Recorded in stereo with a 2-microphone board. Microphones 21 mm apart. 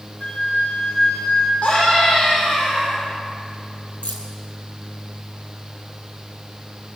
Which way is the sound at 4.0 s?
75° left (ahead or behind).